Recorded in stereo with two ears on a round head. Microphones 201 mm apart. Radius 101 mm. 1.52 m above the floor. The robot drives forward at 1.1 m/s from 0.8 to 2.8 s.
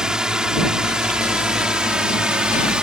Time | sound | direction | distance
0.0 | a drone | 5° right (ahead or behind) | ?